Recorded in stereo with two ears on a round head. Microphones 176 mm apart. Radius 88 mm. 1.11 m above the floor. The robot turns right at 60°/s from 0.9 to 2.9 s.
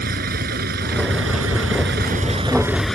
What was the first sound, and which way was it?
A vehicle, 50° right (ahead or behind).